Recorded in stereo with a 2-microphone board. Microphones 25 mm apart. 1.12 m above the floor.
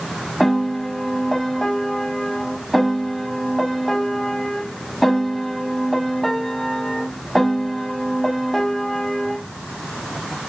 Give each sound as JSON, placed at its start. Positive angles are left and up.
{"t": 0.4, "sound": "a piano", "side_deg": 0, "distance_m": 1.1}